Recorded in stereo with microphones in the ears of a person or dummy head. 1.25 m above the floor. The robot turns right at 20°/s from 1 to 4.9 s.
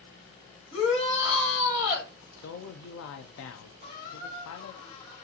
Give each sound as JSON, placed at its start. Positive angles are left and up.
{"t": 0.7, "sound": "a shout", "side_deg": 30, "distance_m": 2.5}
{"t": 2.4, "sound": "a man speaking", "azimuth_deg": 65, "distance_m": 0.5}
{"t": 3.8, "sound": "a squeak", "side_deg": 50, "distance_m": 1.6}